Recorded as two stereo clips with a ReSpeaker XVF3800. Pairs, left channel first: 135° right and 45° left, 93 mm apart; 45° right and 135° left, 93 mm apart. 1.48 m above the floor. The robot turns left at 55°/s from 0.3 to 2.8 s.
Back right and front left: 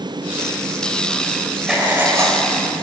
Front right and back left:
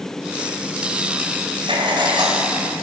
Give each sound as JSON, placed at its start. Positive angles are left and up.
{"t": 1.7, "sound": "writing", "azimuth_deg": 130, "distance_m": 3.0}